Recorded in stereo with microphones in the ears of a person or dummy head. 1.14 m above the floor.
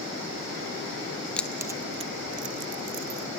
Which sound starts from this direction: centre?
Keys jangling, at 1.4 s.